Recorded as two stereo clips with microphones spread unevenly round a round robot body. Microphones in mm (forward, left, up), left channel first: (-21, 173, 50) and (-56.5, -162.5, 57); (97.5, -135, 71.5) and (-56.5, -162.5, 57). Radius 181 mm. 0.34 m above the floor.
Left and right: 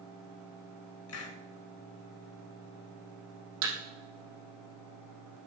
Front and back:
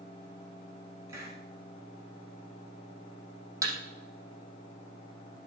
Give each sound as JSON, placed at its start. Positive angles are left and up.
{"t": 1.1, "sound": "a hiss", "azimuth_deg": 120, "distance_m": 1.3}
{"t": 3.6, "sound": "a thud", "azimuth_deg": -100, "distance_m": 4.5}